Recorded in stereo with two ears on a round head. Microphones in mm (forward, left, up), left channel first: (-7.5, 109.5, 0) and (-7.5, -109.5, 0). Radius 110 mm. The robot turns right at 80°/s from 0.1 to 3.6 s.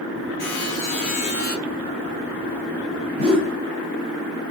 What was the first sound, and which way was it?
A buzzer, 80° left.